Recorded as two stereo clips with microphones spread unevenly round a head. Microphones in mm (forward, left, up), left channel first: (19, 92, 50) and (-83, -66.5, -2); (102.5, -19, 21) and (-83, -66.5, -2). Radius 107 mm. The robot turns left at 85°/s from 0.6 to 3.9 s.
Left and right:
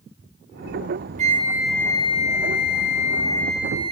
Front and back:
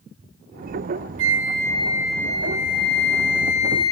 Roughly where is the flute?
Behind.